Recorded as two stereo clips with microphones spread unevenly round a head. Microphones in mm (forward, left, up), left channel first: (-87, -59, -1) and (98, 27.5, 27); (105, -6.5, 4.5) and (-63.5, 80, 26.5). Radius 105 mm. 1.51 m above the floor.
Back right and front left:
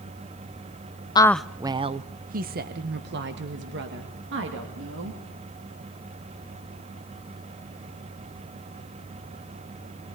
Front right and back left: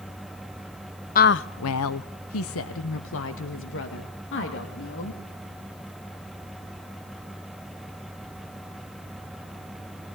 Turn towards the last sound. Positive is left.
turn(degrees=-5)